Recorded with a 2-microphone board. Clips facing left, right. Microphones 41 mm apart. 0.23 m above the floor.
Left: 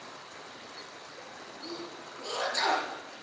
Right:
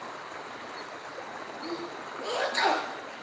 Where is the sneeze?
30° right (ahead or behind), 4 m.